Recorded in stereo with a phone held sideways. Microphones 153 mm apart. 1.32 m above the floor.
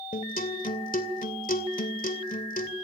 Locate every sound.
0.1 s a guitar: 65° left (ahead or behind), 2.5 m